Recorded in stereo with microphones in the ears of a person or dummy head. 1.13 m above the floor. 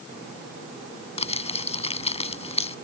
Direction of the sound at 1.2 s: 35° left (ahead or behind).